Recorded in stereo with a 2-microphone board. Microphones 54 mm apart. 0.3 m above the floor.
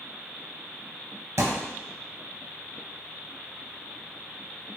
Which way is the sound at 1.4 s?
65° right (ahead or behind).